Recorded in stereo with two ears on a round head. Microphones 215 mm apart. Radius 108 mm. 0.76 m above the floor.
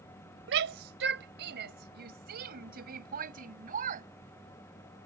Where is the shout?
50° right (ahead or behind); by 4.1 s 35° right (ahead or behind).